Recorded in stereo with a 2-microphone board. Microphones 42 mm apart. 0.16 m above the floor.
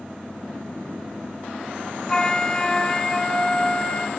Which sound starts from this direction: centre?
A flute, at 2.1 s.